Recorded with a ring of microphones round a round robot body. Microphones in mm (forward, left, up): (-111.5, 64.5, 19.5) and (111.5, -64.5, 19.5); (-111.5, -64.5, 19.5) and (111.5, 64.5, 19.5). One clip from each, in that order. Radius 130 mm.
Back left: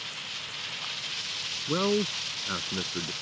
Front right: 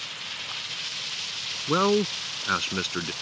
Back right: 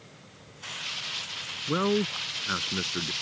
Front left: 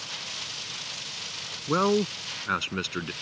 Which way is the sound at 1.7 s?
25° right.